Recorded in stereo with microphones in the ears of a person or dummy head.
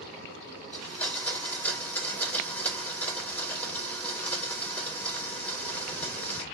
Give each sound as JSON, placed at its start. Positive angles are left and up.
{"t": 0.7, "sound": "a blender", "side_deg": 10, "distance_m": 1.5}